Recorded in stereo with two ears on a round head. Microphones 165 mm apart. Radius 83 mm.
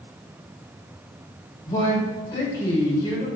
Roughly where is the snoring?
I don't hear snoring.